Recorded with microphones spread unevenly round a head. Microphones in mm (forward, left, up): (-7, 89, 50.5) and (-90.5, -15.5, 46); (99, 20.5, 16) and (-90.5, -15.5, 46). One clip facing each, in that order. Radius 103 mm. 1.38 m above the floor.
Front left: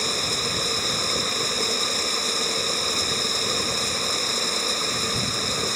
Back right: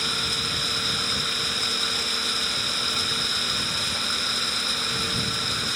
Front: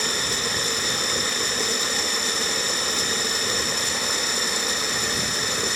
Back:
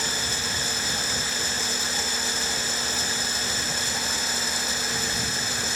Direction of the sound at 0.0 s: 10° right.